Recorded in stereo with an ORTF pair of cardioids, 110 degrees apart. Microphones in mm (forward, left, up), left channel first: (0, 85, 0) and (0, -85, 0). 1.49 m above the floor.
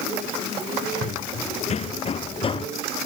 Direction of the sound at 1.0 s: 45° left.